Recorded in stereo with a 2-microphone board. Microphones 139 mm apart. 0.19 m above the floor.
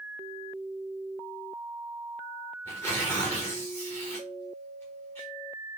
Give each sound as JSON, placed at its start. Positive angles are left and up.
{"t": 2.6, "sound": "tearing paper", "side_deg": 15, "distance_m": 5.0}